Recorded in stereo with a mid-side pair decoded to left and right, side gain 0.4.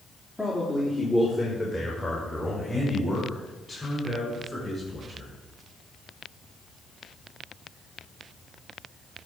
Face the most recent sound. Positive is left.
turn(degrees=15)